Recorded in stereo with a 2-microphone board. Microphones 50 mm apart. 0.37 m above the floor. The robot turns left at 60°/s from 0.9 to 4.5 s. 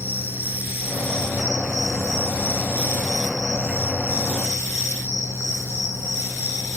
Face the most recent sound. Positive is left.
turn(degrees=105)